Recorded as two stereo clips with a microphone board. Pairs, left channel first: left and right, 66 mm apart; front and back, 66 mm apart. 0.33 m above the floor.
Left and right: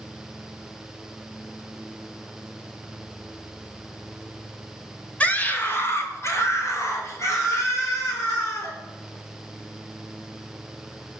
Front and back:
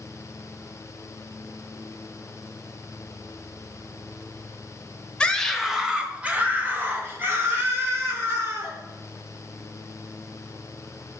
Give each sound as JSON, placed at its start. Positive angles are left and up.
{"t": 5.2, "sound": "a scream", "azimuth_deg": 55, "distance_m": 1.3}